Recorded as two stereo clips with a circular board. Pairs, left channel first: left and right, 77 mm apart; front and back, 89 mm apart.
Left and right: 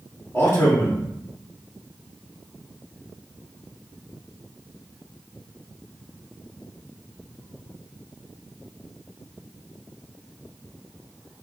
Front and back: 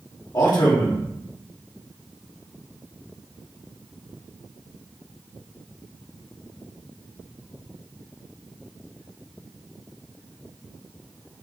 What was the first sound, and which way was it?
A man speaking, 35° left.